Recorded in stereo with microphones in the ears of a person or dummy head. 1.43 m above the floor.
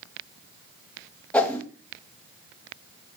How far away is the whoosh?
About 1.0 m.